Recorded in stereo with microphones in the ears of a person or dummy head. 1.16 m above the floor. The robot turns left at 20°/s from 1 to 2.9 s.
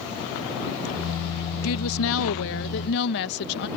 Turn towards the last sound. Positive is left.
turn(degrees=60)  # may be behind; listen again after turning